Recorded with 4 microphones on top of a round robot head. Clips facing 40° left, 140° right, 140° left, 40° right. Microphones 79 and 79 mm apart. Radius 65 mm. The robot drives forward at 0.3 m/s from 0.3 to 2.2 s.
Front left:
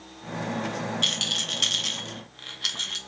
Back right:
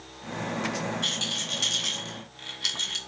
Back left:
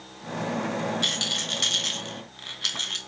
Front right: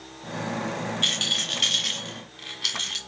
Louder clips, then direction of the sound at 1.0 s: Front left 1 dB, even; 65° left.